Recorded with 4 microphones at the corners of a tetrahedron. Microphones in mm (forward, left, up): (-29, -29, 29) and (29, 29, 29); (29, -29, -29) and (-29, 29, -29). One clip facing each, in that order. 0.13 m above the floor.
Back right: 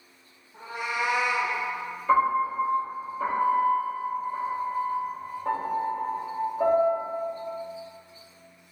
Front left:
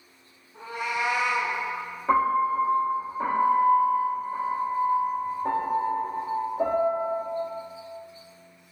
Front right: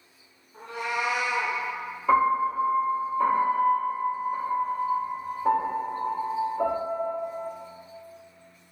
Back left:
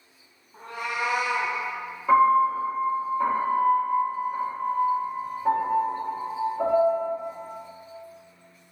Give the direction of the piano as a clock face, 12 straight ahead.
10 o'clock.